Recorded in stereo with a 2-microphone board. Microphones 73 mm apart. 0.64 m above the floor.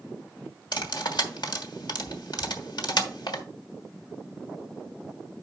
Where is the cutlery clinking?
75° left (ahead or behind), 1.2 m.